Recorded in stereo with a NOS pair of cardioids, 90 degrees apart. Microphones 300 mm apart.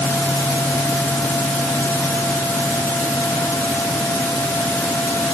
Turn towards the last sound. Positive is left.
turn(degrees=5)